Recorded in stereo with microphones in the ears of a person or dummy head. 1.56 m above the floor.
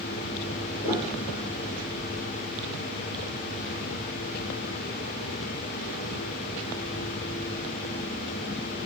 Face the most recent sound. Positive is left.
turn(degrees=45)  # may be behind; listen again after turning